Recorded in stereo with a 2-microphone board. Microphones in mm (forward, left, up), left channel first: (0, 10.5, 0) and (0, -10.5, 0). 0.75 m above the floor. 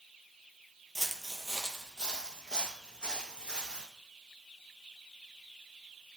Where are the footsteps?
10° right (ahead or behind), 0.8 m; by 3.9 s 45° left (ahead or behind), 2.5 m.